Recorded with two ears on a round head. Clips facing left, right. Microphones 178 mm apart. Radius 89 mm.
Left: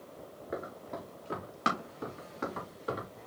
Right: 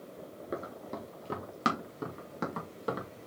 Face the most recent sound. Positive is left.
turn(degrees=-60)  # may be behind; listen again after turning